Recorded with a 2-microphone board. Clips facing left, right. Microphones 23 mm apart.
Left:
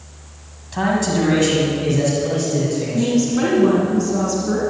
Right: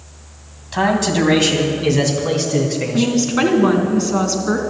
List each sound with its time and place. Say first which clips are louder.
0.7 s a man speaking: right 2 dB; 25° right (ahead or behind), 1.7 m; by 3.2 s 55° right (ahead or behind), 2.5 m
2.9 s a woman speaking: right 1 dB; 45° right (ahead or behind), 2.5 m